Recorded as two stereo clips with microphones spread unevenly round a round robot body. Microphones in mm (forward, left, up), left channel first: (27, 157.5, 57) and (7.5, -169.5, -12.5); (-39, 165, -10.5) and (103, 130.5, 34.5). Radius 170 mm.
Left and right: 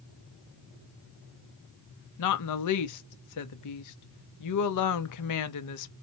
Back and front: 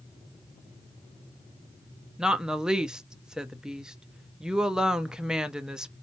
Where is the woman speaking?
90° left, 0.8 m.